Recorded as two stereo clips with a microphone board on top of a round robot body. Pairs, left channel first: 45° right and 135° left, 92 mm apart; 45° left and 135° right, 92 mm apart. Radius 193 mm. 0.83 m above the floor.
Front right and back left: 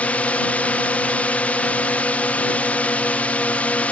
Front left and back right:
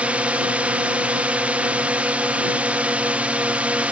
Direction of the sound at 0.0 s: 90° right.